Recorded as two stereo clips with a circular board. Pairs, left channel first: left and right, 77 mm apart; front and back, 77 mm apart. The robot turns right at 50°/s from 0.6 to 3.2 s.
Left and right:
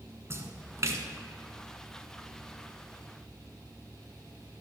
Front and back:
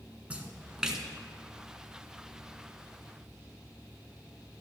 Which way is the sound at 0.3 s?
115° right.